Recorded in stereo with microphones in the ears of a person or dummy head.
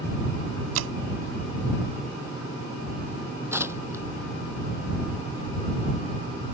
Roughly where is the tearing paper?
Centre.